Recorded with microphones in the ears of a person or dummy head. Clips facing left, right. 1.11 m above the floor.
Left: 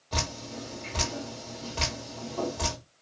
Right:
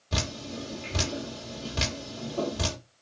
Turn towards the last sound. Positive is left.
turn(degrees=-30)  # may be behind; listen again after turning